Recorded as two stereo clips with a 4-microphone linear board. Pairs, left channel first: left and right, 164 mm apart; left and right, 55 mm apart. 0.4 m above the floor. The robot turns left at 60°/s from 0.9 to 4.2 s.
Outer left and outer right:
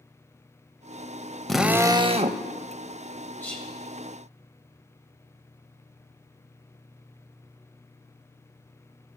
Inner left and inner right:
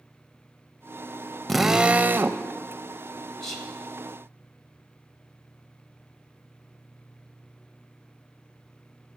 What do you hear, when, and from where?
1.5 s a drill: 5° left, 0.6 m; by 2.4 s 55° right, 0.6 m
3.4 s whispering: 10° left (ahead or behind), 2.5 m; by 3.7 s 5° right (ahead or behind), 2.5 m